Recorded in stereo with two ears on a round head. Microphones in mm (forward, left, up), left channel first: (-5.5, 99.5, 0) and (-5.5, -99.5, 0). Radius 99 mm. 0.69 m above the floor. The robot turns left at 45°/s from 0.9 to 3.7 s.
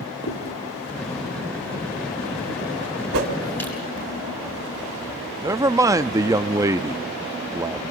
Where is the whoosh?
70° right (ahead or behind), 2.5 m; by 3.3 s 60° right (ahead or behind), 2.5 m.